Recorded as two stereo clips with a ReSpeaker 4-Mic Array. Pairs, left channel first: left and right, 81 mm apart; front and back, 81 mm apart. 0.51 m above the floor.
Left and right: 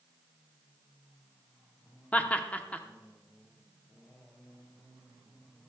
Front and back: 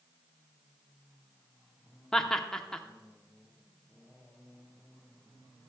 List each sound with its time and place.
2.1 s laughter: 70° left, 0.6 m